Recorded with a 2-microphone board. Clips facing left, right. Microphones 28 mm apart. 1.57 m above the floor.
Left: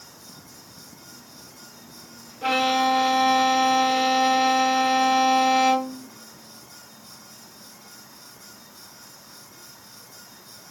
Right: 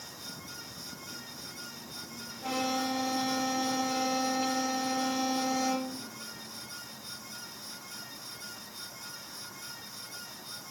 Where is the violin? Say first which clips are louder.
Left 11 dB; 70° left (ahead or behind), 1.3 m.